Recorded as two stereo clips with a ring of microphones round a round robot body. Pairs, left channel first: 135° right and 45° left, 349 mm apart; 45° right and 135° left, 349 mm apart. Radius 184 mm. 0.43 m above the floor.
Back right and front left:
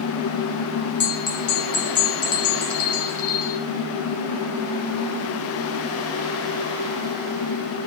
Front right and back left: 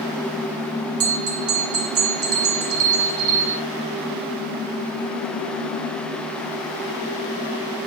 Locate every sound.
1.0 s a bell: 170° right, 2.5 m